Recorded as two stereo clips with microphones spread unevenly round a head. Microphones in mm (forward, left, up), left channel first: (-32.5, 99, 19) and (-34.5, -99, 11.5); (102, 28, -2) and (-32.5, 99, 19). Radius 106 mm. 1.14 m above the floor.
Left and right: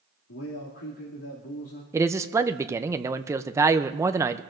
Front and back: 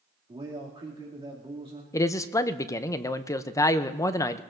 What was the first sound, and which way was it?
A man speaking, 100° left.